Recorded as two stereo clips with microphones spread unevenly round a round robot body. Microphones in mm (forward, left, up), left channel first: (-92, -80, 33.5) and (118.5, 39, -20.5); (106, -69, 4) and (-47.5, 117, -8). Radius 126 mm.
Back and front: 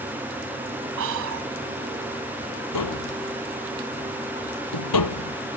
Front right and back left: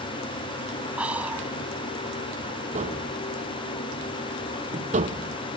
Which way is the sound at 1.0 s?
45° left.